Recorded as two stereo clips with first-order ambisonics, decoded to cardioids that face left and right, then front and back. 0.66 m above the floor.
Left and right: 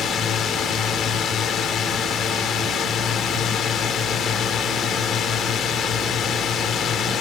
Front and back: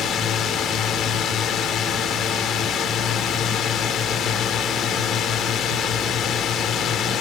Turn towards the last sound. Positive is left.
turn(degrees=45)